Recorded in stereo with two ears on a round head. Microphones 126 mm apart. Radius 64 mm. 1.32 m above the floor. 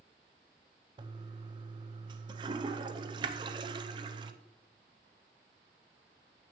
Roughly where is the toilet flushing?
Right.